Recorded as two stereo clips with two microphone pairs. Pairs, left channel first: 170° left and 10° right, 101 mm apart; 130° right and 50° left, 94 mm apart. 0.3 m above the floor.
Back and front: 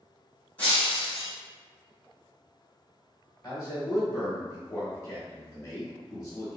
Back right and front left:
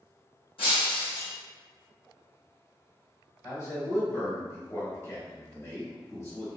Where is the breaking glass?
115° right, 1.9 m.